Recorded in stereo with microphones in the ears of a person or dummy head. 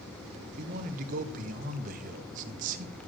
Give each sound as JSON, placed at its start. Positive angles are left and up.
{"t": 0.6, "sound": "a man speaking", "side_deg": -50, "distance_m": 0.9}